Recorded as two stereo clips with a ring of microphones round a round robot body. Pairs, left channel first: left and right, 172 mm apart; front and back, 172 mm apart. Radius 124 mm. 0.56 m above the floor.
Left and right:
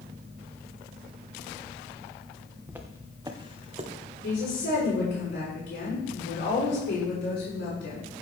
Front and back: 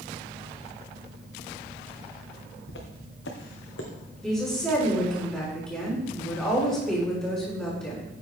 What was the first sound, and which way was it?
Footsteps, 10° right.